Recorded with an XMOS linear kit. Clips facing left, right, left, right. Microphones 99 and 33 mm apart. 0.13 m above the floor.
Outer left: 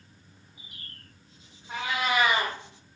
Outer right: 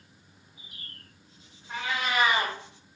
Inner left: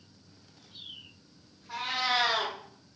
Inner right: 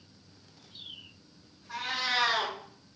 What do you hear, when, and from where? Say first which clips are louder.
1.7 s a cat meowing: outer left 2 dB, inner left 1 dB; 15° left (ahead or behind), 1.5 m